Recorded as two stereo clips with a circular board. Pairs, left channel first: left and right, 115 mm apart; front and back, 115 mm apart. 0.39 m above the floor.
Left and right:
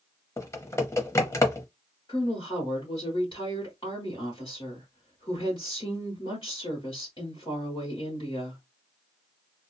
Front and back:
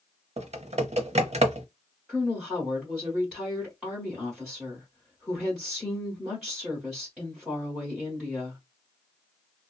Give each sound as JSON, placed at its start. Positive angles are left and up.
{"t": 0.4, "sound": "typing on a keyboard", "azimuth_deg": 155, "distance_m": 0.6}
{"t": 2.1, "sound": "a woman speaking", "azimuth_deg": 90, "distance_m": 1.3}